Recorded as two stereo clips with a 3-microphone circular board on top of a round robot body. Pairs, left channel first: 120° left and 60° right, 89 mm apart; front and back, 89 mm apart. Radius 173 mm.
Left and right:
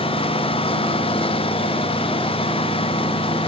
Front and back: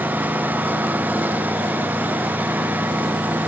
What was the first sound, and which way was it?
A lawn mower, 105° left.